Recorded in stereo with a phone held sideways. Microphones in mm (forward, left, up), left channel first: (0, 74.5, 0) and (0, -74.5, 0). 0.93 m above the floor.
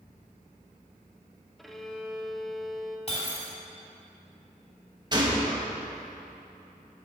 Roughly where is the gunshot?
Right.